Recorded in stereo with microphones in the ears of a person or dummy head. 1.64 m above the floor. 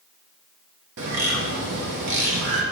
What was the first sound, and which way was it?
A bird, 65° right (ahead or behind).